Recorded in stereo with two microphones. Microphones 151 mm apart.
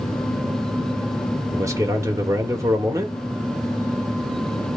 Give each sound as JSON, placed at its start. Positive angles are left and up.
{"t": 1.5, "sound": "a man speaking", "side_deg": -20, "distance_m": 1.2}